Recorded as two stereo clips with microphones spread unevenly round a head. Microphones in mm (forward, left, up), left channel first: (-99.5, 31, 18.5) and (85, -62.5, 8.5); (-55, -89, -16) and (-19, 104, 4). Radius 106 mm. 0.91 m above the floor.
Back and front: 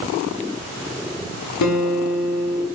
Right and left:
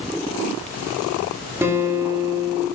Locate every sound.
1.6 s a guitar: 155° left, 0.8 m